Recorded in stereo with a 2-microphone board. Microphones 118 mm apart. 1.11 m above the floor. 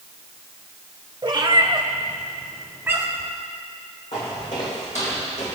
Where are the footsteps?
75° left (ahead or behind), 4.5 m; by 5.5 s 65° left (ahead or behind), 2.5 m.